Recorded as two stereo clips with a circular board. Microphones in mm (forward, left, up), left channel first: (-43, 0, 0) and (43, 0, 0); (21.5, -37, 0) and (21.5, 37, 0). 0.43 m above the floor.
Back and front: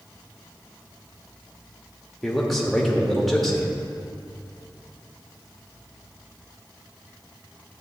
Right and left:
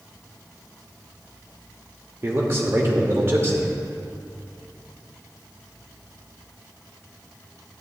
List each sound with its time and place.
2.2 s a man speaking: 90° left, 1.0 m